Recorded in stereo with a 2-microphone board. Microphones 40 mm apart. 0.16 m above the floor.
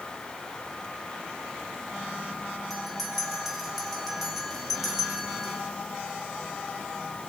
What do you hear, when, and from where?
2.7 s a bell: centre (ahead or behind), 5 m